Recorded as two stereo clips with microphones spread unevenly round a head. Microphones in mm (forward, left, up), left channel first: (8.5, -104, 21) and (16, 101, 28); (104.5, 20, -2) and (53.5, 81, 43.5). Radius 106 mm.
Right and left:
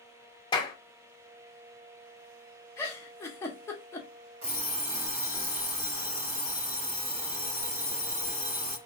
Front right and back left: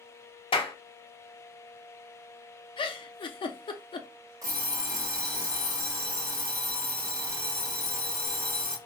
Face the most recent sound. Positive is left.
turn(degrees=110)